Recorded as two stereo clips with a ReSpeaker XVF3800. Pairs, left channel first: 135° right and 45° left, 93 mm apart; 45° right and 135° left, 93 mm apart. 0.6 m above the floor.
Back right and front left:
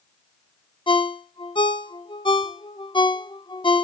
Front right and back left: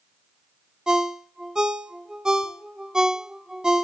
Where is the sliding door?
I don't hear a sliding door.